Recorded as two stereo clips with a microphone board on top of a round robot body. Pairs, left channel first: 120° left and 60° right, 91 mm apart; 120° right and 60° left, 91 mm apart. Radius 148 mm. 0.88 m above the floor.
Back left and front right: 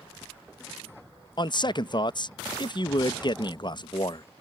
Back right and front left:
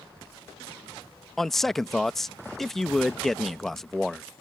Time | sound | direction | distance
1.4 | a man speaking | 155° left | ?